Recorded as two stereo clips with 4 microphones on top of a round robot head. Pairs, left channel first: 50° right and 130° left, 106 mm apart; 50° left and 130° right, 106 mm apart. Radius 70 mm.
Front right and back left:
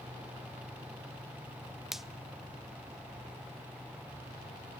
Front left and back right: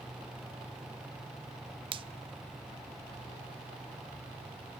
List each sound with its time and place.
1.9 s a finger snap: 140° right, 0.6 m